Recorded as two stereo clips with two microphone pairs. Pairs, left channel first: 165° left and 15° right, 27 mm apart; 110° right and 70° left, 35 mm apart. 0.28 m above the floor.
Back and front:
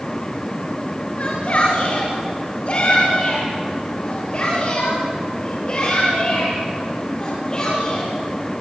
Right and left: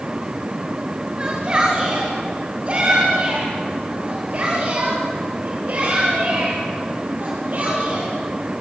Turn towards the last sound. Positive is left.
turn(degrees=105)